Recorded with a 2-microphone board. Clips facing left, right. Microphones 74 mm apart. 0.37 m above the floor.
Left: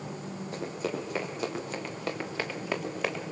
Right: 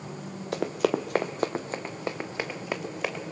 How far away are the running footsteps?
About 1.4 m.